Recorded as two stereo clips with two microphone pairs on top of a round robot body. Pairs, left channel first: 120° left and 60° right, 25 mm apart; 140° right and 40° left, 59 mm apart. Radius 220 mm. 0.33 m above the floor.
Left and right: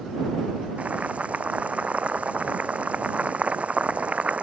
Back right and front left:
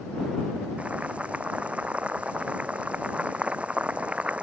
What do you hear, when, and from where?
0.8 s boiling: 30° right